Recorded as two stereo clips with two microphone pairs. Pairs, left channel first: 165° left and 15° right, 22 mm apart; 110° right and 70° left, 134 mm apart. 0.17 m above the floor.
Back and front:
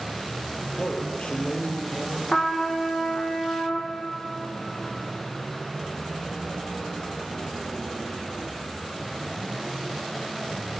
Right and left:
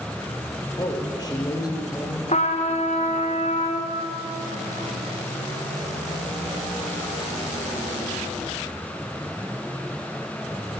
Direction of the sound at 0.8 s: 170° right.